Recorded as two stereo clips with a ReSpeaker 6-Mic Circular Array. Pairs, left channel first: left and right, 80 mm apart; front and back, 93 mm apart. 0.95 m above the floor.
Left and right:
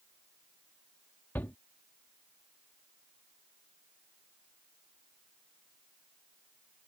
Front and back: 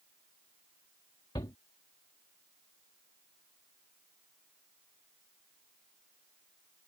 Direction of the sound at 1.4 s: 30° left.